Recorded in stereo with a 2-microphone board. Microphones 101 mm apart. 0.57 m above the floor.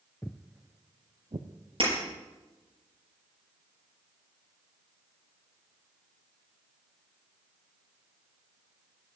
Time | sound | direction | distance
0.2 | footsteps | 20° left (ahead or behind) | 0.6 m
1.8 | breaking glass | 55° right (ahead or behind) | 6.5 m